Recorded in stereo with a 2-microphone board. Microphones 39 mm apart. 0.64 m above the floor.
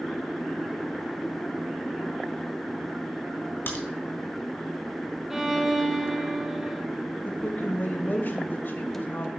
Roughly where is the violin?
Centre.